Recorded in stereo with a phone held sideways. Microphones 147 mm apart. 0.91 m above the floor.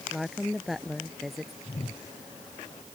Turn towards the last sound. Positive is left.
turn(degrees=45)  # may be behind; listen again after turning